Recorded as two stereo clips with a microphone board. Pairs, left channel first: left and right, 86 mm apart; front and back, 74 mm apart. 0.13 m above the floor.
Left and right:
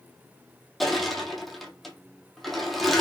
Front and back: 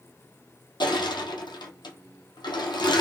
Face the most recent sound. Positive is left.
turn(degrees=0)